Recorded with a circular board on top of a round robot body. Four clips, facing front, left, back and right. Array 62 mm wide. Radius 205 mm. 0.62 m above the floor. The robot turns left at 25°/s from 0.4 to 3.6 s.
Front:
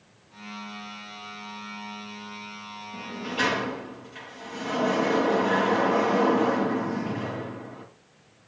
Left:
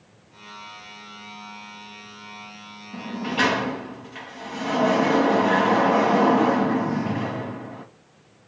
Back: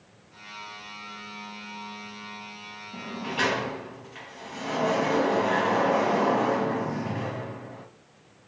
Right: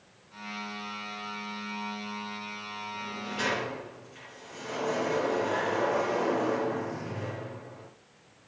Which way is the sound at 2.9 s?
115° left.